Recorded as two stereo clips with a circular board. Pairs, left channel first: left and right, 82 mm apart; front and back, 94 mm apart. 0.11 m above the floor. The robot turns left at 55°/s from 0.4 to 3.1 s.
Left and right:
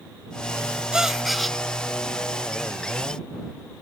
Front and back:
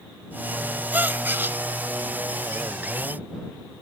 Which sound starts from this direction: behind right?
A gasp, at 0.9 s.